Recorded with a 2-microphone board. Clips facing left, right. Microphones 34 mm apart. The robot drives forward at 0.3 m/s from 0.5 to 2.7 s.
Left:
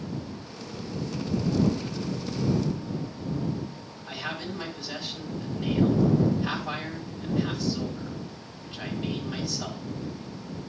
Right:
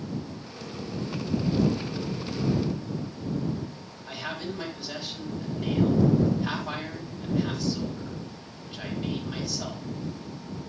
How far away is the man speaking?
About 4 m.